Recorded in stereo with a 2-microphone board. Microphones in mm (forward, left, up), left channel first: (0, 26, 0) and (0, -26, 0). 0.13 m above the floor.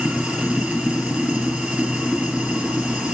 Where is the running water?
20° right (ahead or behind), 1.9 m.